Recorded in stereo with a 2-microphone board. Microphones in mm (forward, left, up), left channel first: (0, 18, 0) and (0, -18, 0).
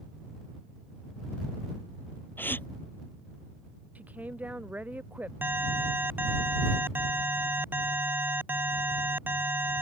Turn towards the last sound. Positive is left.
turn(degrees=-65)  # may be behind; listen again after turning